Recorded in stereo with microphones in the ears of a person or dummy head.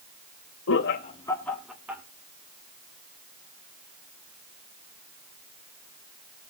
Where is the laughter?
65° left (ahead or behind), 0.8 m; by 2.0 s 15° right (ahead or behind), 1.9 m.